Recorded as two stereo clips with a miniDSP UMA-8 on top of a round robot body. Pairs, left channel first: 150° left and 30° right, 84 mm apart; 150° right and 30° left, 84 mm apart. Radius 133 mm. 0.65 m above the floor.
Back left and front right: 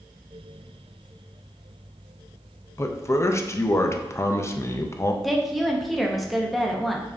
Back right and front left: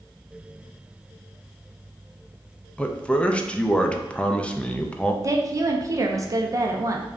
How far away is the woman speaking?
About 0.7 m.